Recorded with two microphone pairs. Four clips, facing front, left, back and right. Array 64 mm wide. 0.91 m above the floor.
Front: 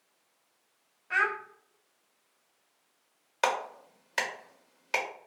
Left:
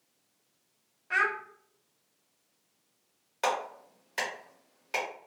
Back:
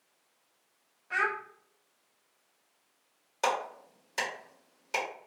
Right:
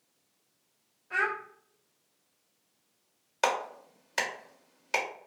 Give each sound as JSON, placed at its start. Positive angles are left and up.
{"t": 1.1, "sound": "a child speaking", "azimuth_deg": 45, "distance_m": 0.7}
{"t": 3.4, "sound": "a clap", "azimuth_deg": -15, "distance_m": 0.9}